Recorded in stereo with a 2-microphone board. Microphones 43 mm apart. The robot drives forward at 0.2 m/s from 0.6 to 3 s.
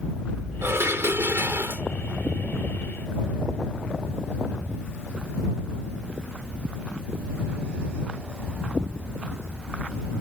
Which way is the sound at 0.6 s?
85° right.